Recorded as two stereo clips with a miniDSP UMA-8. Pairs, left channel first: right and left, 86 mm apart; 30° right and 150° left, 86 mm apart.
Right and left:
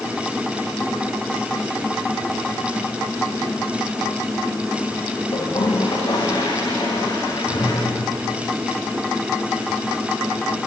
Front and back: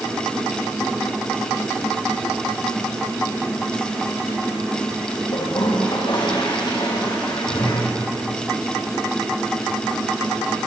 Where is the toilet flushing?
60° right, 7 m.